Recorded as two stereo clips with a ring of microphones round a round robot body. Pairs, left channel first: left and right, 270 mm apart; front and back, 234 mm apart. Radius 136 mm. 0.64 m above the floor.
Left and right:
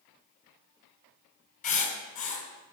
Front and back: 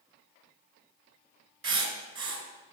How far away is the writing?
About 3 m.